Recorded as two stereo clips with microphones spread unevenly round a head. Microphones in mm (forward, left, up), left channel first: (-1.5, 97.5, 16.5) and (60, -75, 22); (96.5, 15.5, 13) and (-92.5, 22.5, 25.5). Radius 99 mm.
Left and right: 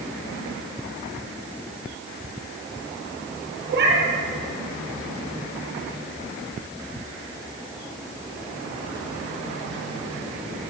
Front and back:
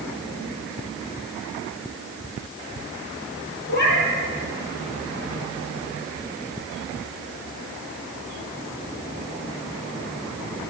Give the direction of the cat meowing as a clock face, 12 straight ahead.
1 o'clock.